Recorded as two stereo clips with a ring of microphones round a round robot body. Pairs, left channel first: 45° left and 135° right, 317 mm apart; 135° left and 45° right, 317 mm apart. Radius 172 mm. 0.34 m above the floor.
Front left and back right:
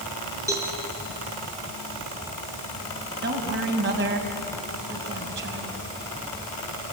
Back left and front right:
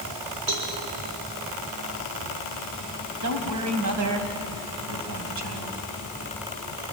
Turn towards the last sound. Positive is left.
turn(degrees=-80)